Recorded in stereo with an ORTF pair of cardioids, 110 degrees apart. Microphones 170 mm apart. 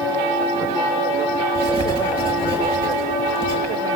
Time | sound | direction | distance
1.6 | writing | 30° right | 6 m